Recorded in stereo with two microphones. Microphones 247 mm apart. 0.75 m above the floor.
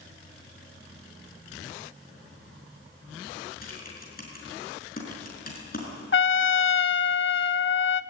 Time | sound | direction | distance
3.6 | typing on a keyboard | 35° left (ahead or behind) | 6 m
6.1 | a trumpet | 55° left (ahead or behind) | 0.5 m